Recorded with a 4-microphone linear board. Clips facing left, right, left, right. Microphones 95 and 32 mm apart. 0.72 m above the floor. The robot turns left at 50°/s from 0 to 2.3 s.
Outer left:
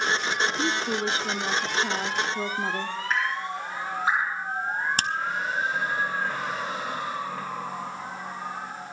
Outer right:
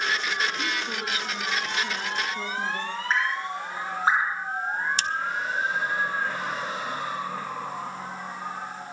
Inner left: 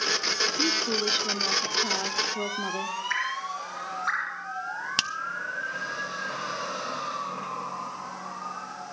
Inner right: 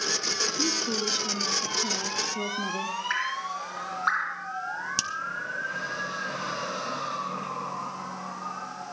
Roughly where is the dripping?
Right.